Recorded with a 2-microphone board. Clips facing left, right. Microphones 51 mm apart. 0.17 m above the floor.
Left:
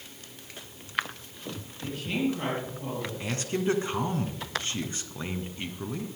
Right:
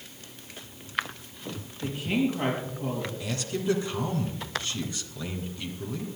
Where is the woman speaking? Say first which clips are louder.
Right 2 dB; 15° right (ahead or behind), 4.5 m.